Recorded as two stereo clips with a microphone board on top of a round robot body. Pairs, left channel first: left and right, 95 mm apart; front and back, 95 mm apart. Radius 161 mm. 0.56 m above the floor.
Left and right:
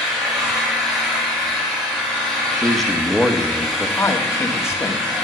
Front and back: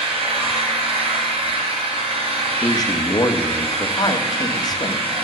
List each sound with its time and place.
0.0 s an engine running: 175° right, 3.5 m
2.6 s a man speaking: 5° left, 1.6 m
4.0 s a man speaking: 35° left, 1.9 m